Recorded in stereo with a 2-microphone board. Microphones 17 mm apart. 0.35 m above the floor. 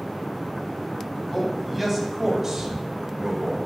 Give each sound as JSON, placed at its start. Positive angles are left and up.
{"t": 1.3, "sound": "a man speaking", "side_deg": 0, "distance_m": 2.5}